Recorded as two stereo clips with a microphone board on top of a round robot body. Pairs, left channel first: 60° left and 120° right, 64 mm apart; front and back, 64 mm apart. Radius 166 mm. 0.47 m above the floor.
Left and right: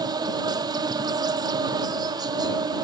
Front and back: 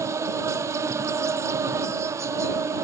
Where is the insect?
135° right.